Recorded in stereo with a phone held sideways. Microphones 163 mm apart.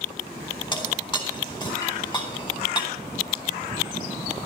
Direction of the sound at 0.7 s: 25° left (ahead or behind).